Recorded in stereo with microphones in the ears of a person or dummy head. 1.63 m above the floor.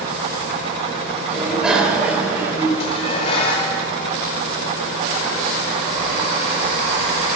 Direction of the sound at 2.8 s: 30° left (ahead or behind).